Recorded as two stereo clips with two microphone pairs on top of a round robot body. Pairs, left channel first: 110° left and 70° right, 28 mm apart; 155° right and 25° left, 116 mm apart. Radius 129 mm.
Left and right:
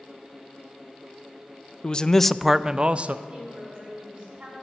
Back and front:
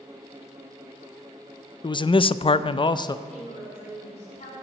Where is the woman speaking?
120° right, 6 m.